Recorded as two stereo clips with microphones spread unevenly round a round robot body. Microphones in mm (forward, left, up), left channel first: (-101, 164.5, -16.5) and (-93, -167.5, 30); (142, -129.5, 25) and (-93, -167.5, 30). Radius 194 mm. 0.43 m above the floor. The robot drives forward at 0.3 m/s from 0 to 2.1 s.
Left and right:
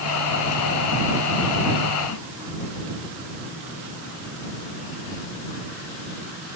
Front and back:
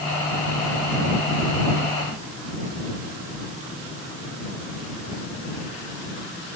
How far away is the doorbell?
No doorbell in this recording.